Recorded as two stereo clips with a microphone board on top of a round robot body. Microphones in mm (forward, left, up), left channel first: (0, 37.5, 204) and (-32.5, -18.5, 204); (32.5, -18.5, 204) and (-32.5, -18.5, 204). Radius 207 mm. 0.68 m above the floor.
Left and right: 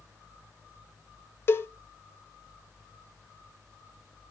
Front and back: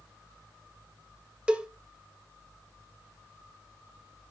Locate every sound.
1.5 s a cowbell: 110° left, 1.2 m